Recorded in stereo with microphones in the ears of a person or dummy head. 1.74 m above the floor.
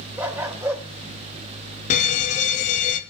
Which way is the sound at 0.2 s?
5° right (ahead or behind).